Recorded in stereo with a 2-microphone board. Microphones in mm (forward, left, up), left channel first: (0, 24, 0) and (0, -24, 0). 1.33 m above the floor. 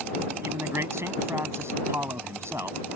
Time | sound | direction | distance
0.4 | a man speaking | 65° right (ahead or behind) | ?